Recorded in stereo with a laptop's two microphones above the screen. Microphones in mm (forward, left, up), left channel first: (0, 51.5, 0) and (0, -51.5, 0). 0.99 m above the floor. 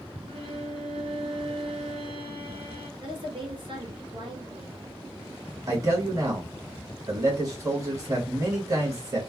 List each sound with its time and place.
0.3 s a violin: 65° right (ahead or behind), 1.3 m
3.0 s a woman speaking: 55° right (ahead or behind), 1.4 m
5.7 s a man speaking: 35° right (ahead or behind), 1.4 m